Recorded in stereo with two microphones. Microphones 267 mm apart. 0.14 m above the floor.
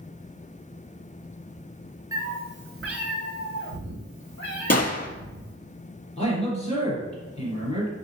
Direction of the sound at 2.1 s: 15° right (ahead or behind).